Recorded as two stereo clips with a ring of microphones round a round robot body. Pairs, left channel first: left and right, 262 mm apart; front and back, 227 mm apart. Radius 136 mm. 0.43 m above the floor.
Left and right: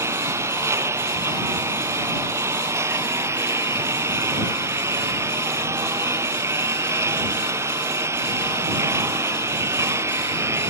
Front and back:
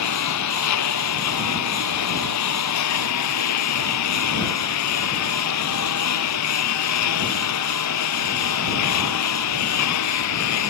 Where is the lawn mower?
10° right.